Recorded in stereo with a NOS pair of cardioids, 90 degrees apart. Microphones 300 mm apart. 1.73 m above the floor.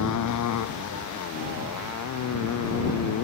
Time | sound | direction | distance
0.0 | a motorcycle | 70° left | ?